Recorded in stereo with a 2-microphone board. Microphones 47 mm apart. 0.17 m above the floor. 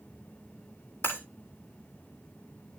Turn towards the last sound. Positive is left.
turn(degrees=60)  # may be behind; listen again after turning